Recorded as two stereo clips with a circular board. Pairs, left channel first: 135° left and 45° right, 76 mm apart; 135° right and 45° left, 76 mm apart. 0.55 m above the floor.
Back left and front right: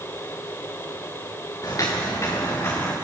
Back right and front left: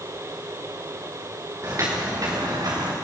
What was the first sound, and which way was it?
Footsteps, 95° left.